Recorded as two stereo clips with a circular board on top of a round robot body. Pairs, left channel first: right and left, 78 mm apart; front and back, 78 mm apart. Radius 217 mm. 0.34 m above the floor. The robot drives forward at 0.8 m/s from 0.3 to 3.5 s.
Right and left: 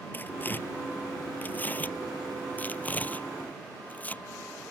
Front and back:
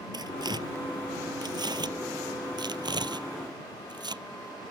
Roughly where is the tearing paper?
Behind right.